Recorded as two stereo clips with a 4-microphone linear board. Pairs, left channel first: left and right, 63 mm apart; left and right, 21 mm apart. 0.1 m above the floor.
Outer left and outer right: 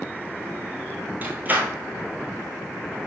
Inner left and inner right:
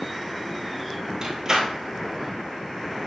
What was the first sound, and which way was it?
A door slam, 30° right (ahead or behind).